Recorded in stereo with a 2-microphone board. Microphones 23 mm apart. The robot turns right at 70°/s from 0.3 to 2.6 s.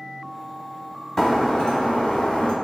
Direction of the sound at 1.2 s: 20° left.